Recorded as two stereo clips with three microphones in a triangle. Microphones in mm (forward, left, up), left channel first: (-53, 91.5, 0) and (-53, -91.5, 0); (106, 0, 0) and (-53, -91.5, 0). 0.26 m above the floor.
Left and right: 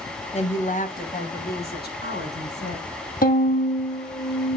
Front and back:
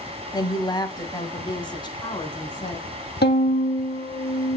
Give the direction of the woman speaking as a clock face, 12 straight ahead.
9 o'clock.